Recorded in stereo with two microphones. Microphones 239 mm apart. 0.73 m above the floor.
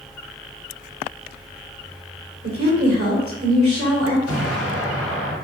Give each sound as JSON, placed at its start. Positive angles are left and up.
{"t": 2.4, "sound": "a woman speaking", "side_deg": -65, "distance_m": 2.5}
{"t": 4.3, "sound": "an explosion", "side_deg": -85, "distance_m": 2.0}